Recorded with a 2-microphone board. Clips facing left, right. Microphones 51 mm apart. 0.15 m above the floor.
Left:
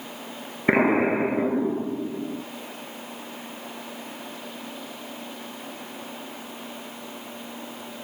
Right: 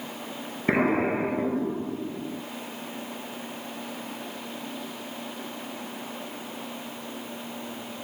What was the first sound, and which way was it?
An explosion, 30° left (ahead or behind).